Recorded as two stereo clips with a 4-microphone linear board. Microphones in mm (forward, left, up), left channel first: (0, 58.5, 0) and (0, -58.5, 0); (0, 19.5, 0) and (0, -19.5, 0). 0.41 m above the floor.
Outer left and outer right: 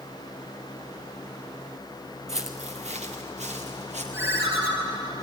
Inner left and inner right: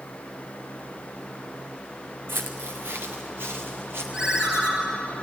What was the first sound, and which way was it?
Footsteps, 75° right (ahead or behind).